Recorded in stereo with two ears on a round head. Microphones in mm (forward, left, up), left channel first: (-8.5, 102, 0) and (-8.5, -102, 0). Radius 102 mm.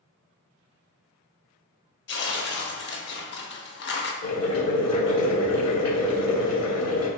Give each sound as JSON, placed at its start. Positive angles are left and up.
{"t": 2.1, "sound": "tearing paper", "side_deg": 55, "distance_m": 0.6}
{"t": 4.2, "sound": "boiling", "side_deg": 75, "distance_m": 1.6}